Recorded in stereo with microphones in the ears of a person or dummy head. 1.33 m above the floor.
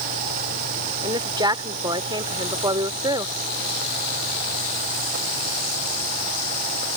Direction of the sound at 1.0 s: 25° right (ahead or behind).